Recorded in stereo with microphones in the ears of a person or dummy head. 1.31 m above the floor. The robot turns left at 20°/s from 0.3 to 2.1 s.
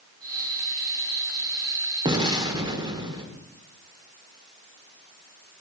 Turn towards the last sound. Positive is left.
turn(degrees=-20)  # may be behind; listen again after turning